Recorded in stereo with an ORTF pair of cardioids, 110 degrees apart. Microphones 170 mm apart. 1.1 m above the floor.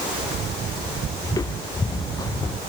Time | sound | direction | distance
1.2 | footsteps | 20° left | ?